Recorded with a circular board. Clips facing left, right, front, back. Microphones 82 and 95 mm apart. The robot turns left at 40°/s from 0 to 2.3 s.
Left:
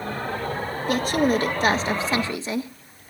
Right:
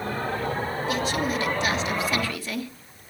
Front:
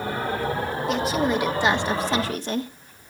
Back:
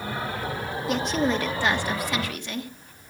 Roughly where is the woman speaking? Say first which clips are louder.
Left 7 dB, front 1 dB; left.